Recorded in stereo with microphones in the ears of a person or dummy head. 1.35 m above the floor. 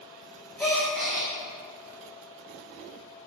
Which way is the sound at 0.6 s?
5° left (ahead or behind).